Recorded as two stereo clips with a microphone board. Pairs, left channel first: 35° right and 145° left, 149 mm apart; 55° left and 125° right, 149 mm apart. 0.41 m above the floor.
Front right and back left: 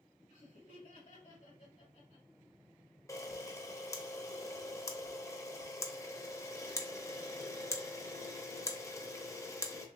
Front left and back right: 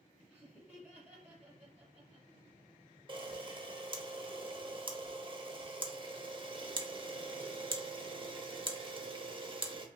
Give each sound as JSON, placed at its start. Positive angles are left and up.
{"t": 0.3, "sound": "laughter", "azimuth_deg": -50, "distance_m": 1.7}
{"t": 3.1, "sound": "a camera shutter", "azimuth_deg": -95, "distance_m": 0.6}